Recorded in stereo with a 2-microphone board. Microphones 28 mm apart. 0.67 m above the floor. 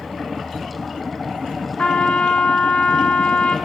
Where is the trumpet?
55° left (ahead or behind), 1.7 m.